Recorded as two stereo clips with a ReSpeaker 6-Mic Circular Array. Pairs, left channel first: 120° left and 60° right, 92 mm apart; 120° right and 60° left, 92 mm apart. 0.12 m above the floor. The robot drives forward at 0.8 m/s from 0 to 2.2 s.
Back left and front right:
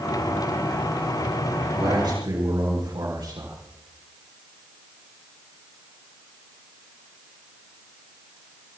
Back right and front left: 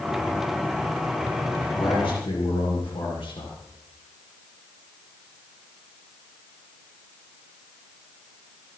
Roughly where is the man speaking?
Right.